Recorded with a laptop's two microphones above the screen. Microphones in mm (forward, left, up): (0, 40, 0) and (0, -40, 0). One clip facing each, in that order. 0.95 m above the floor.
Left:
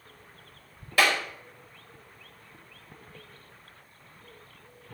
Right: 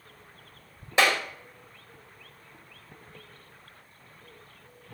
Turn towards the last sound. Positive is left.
turn(degrees=-25)  # may be behind; listen again after turning